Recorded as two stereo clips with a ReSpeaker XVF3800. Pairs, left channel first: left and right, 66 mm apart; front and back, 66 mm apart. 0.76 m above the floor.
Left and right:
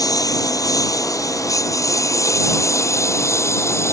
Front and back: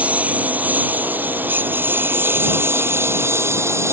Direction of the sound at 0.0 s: 110° left.